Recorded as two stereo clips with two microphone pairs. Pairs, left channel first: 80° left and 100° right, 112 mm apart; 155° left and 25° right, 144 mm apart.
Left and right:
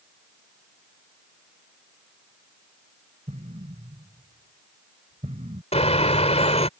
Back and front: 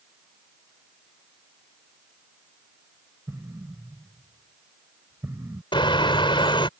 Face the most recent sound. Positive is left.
turn(degrees=100)